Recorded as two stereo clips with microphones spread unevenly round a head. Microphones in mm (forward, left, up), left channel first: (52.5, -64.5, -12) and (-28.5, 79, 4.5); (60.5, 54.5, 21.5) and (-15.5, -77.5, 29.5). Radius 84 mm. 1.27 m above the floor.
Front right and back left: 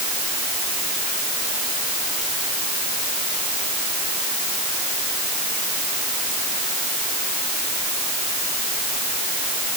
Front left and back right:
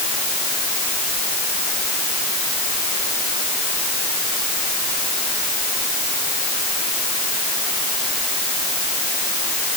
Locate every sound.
Only background noise.